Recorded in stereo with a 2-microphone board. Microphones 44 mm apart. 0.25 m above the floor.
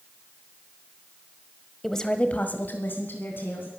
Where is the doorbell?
I don't hear a doorbell.